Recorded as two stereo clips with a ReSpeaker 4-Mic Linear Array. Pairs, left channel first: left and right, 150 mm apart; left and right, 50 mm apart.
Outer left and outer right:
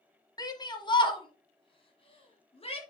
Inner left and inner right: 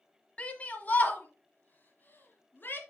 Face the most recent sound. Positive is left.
turn(degrees=40)  # may be behind; listen again after turning